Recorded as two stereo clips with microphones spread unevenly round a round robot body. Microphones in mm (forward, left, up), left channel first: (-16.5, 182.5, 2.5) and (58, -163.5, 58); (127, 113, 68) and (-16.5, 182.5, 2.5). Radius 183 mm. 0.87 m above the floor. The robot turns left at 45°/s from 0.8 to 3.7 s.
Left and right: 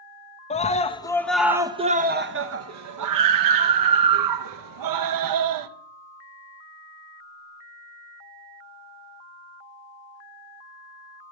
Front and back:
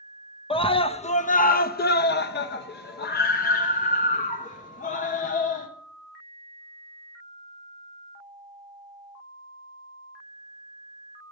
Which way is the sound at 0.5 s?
45° left.